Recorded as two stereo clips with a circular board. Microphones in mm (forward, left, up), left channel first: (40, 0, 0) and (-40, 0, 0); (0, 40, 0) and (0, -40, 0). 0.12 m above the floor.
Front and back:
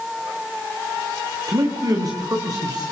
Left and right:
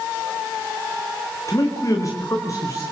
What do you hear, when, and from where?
1.5 s a man speaking: 135° left, 7.5 m; by 2.8 s 140° left, 9 m